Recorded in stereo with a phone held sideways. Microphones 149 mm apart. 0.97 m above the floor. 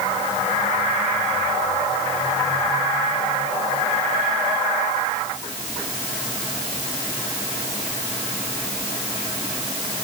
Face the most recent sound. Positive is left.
No sound to turn to.